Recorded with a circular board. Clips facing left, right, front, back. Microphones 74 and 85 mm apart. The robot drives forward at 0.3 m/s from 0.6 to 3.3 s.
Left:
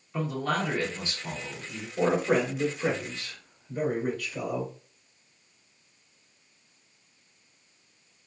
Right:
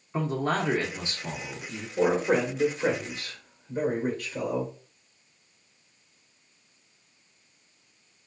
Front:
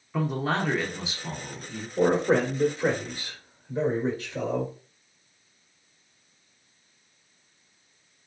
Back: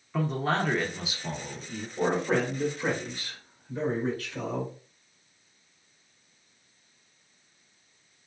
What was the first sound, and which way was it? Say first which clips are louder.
A man speaking: right 2 dB, front 1 dB; 80° right.